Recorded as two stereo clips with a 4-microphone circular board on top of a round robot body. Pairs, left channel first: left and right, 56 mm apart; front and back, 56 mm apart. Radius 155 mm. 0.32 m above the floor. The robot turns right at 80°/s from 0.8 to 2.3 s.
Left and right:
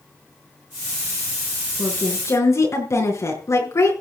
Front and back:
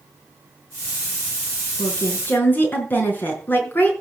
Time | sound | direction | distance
1.8 | a woman speaking | 15° left | 5.5 m